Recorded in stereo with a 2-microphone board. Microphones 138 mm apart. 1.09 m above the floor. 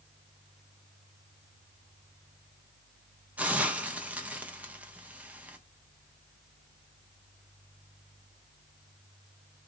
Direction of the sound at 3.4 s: 10° right (ahead or behind).